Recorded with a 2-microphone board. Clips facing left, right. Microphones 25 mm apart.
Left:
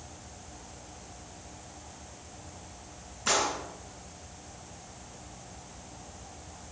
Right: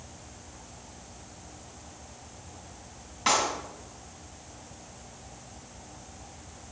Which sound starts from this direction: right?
A clap, at 3.3 s.